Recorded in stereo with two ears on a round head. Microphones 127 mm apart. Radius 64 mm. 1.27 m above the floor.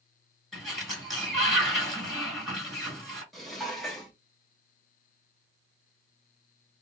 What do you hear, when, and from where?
0.5 s a sliding door: centre (ahead or behind), 1.5 m
3.3 s dishes clattering: centre (ahead or behind), 0.8 m